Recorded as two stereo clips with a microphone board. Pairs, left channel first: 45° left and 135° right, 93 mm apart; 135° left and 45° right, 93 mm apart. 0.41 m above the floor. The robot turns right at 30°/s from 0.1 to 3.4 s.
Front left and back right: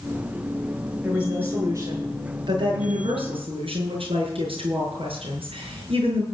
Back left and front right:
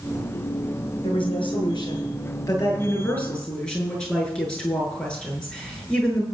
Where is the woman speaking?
145° left, 7 m; by 6.2 s 145° right, 7 m.